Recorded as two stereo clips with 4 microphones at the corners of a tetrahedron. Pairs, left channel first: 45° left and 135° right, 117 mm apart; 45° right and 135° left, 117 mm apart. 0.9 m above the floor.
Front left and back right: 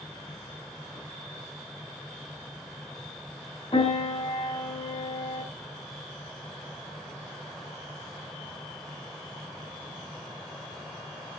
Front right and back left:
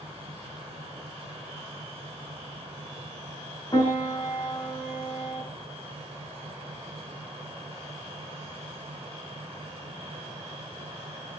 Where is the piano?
5° left, 4 m.